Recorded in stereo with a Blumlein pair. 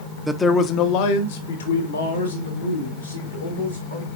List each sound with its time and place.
0.3 s a man speaking: straight ahead, 0.8 m; by 4.1 s 75° left, 4 m